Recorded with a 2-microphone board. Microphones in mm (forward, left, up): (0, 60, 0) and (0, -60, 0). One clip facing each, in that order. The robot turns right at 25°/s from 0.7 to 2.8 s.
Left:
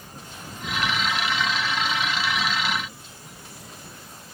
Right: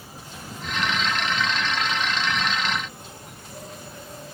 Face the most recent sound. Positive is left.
turn(degrees=-120)